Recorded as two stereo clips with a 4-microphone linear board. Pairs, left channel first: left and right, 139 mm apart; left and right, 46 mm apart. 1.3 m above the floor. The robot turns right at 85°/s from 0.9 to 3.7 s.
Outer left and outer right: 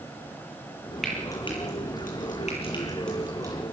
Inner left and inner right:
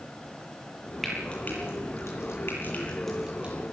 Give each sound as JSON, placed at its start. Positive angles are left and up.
{"t": 1.0, "sound": "frying", "side_deg": 0, "distance_m": 9.5}